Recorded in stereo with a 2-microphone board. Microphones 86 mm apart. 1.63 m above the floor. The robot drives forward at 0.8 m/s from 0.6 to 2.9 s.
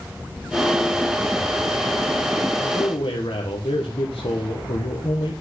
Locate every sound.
2.6 s a man speaking: 80° left, 1.8 m; by 5.4 s 85° left, 1.8 m